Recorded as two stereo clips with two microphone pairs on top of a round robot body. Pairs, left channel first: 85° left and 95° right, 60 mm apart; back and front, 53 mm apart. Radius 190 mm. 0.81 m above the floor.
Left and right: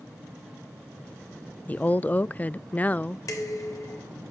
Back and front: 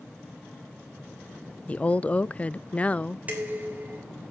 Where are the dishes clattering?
60° left, 3 m.